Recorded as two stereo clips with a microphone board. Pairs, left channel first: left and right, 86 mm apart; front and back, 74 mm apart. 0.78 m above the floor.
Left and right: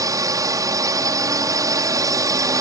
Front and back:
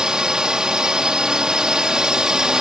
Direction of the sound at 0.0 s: 100° right.